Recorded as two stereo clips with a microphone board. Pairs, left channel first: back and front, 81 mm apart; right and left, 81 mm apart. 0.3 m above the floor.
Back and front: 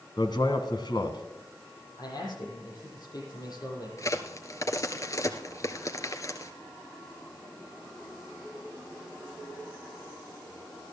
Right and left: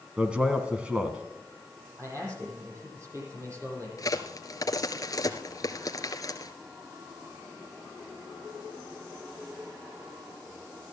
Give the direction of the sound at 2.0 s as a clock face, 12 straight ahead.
7 o'clock.